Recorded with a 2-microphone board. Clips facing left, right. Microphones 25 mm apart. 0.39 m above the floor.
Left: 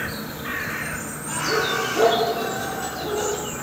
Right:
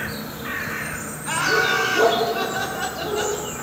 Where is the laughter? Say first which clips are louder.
Right 4 dB; 45° right (ahead or behind), 2.5 m; by 3.4 s 20° right (ahead or behind), 2 m.